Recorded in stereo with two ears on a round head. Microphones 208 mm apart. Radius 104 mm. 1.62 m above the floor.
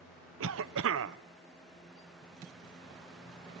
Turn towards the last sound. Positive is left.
turn(degrees=-60)  # may be behind; listen again after turning